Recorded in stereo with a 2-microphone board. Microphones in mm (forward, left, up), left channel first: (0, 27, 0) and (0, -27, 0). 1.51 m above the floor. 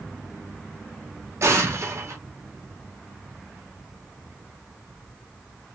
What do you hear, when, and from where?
1.4 s an explosion: 55° right (ahead or behind), 0.9 m